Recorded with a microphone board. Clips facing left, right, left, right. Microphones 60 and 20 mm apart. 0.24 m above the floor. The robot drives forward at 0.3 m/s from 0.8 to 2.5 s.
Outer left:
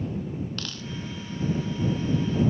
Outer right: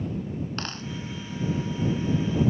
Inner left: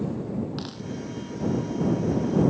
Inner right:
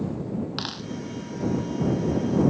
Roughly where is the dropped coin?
Right.